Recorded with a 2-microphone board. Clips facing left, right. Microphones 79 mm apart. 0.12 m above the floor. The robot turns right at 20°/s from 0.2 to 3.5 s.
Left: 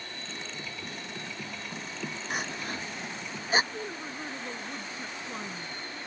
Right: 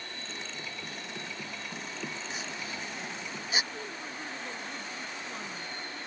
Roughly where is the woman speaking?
Left.